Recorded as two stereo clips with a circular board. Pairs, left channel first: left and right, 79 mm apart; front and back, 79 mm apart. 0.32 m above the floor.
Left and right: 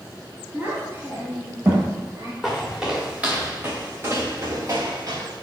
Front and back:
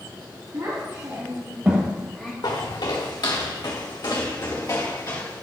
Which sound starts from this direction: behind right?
A child speaking, at 0.5 s.